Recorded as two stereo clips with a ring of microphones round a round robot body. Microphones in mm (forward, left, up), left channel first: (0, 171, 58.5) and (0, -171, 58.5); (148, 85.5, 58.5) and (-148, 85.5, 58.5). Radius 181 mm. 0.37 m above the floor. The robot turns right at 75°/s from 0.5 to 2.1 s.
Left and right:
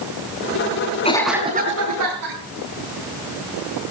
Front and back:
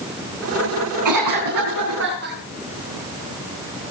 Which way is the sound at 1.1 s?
160° left.